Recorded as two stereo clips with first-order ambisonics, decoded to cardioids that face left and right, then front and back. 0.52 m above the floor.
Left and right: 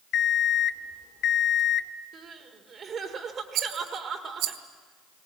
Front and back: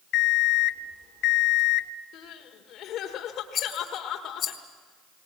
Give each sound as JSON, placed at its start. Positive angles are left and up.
{"t": 0.1, "sound": "an alarm clock", "azimuth_deg": 45, "distance_m": 0.6}
{"t": 2.1, "sound": "crying", "azimuth_deg": -30, "distance_m": 1.8}
{"t": 3.5, "sound": "a rattle", "azimuth_deg": -60, "distance_m": 1.8}